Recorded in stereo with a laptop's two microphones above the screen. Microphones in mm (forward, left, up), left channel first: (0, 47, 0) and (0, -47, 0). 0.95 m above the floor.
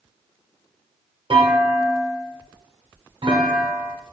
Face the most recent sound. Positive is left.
turn(degrees=-70)  # may be behind; listen again after turning